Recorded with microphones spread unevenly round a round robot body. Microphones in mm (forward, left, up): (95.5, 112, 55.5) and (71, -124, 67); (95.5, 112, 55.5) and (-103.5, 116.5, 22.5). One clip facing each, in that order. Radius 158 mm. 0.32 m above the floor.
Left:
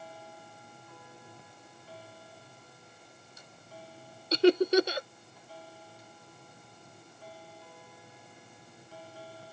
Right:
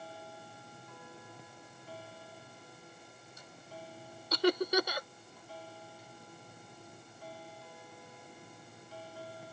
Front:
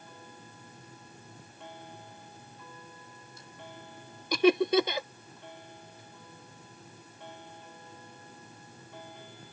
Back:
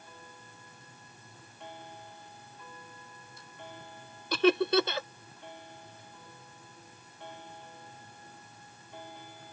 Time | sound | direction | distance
4.3 | laughter | 80° left | ?